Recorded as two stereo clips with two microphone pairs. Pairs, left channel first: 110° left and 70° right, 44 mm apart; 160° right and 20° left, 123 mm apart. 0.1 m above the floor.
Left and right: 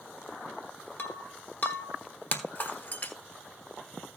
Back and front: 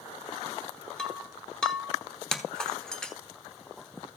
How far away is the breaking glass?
About 1.1 m.